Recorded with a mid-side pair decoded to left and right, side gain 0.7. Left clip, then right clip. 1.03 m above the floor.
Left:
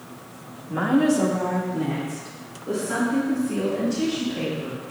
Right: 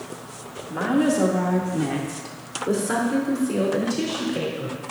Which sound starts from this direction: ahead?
A woman speaking, at 0.7 s.